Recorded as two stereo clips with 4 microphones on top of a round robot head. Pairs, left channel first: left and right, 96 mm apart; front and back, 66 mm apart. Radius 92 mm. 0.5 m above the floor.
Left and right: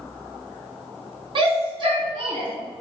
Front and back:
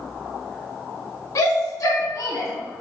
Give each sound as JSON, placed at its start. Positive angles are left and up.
{"t": 1.4, "sound": "a shout", "azimuth_deg": -50, "distance_m": 5.5}